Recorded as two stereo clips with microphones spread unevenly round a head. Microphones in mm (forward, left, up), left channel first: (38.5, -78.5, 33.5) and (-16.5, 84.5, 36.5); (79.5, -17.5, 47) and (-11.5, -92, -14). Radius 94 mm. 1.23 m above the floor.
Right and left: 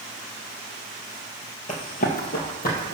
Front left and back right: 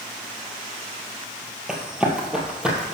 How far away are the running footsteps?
About 1.8 m.